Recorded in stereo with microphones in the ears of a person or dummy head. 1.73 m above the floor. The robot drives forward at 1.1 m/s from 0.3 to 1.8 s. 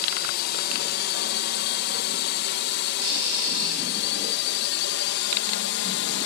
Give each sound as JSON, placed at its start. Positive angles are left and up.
{"t": 0.0, "sound": "a drone", "side_deg": 55}